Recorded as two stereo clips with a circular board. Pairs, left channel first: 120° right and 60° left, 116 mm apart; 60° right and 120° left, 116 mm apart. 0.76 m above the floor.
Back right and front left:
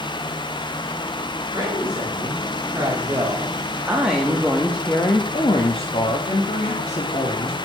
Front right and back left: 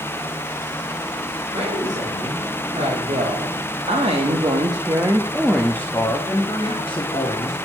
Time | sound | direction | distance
1.5 | a woman speaking | 115° left | 2 m